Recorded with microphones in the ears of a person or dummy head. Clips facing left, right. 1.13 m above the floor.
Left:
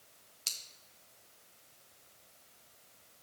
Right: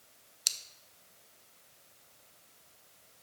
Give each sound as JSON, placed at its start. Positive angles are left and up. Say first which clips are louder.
{"t": 0.5, "sound": "scissors", "louder": "right 2 dB", "side_deg": -20, "distance_m": 0.5}